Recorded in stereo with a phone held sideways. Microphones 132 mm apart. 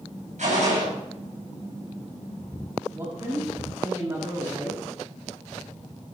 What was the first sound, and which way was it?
A gunshot, 65° right (ahead or behind).